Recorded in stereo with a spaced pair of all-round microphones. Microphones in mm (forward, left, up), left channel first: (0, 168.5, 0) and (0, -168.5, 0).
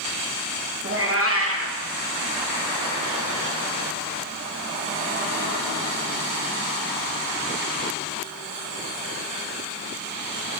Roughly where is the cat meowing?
Right.